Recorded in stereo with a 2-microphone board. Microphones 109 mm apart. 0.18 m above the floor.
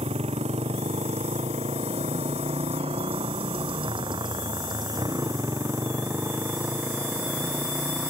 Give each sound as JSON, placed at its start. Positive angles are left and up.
{"t": 0.0, "sound": "a motorcycle", "side_deg": -75}